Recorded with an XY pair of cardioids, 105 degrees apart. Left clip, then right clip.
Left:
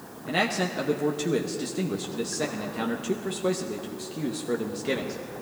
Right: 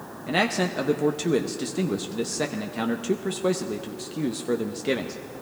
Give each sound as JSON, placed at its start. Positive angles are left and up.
{"t": 0.3, "sound": "a man speaking", "azimuth_deg": -30, "distance_m": 0.8}